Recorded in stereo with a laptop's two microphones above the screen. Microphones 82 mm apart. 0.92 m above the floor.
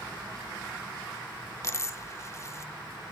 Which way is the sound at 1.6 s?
35° left (ahead or behind).